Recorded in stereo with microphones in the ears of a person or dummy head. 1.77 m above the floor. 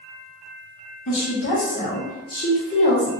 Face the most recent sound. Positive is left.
turn(degrees=30)  # may be behind; listen again after turning